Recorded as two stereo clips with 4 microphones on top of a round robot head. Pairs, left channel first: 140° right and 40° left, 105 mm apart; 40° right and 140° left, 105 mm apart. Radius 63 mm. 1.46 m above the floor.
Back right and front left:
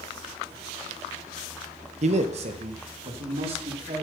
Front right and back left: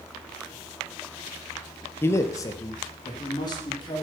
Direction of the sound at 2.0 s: 30° left.